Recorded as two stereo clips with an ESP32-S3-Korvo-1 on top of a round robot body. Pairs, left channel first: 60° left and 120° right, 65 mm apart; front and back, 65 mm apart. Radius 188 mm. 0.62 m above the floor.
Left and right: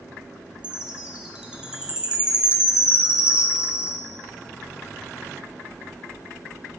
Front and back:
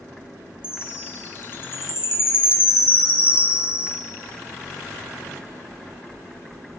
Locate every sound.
0.6 s a chime: 45° right, 2 m